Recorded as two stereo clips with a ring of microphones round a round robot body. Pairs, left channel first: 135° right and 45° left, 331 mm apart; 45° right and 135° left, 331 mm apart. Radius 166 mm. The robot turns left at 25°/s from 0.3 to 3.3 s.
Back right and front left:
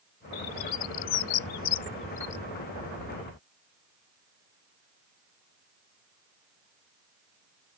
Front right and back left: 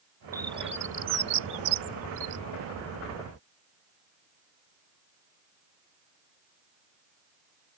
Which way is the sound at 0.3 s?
145° right.